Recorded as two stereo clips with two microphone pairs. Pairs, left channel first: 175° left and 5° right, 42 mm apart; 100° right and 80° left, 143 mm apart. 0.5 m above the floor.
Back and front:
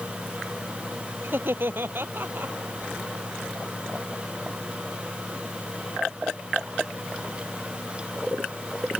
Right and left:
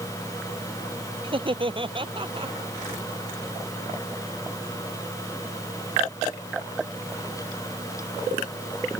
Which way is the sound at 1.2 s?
30° left.